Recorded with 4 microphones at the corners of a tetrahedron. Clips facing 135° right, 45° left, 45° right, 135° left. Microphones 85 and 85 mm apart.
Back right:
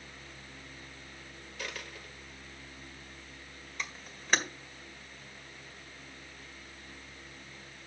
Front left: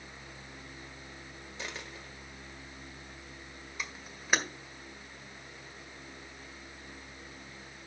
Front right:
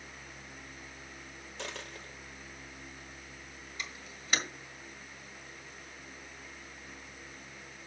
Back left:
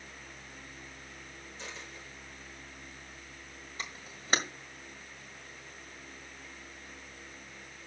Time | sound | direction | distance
1.6 | a dropped coin | 20° right | 1.7 m
3.8 | a camera shutter | 125° left | 1.7 m